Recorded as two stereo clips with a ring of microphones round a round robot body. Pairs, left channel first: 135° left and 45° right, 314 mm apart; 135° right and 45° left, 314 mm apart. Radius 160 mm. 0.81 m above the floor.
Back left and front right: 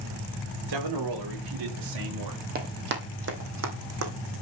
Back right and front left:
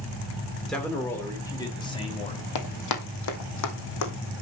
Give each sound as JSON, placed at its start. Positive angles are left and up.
{"t": 0.7, "sound": "a man speaking", "azimuth_deg": -45, "distance_m": 2.5}
{"t": 2.5, "sound": "running footsteps", "azimuth_deg": -105, "distance_m": 1.9}